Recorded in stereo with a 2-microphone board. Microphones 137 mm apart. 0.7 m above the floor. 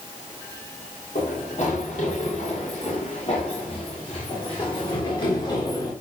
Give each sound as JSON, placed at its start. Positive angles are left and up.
{"t": 1.1, "sound": "running footsteps", "side_deg": 70, "distance_m": 7.5}